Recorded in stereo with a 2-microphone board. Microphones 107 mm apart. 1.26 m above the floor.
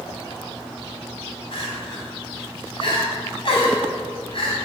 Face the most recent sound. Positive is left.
turn(degrees=55)  # may be behind; listen again after turning